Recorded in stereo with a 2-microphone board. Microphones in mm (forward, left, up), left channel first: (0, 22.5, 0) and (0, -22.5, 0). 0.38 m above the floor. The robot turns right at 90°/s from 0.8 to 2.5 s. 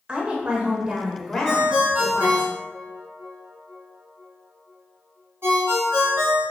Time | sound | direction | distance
0.1 | a woman speaking | 35° right | 1.1 m
1.4 | a ringtone | 5° left (ahead or behind) | 1.8 m